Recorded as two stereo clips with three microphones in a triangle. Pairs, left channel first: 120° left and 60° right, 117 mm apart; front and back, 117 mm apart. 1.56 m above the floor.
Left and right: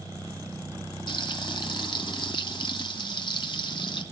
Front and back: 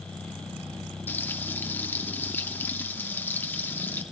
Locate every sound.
1.1 s frying: 70° left, 2.5 m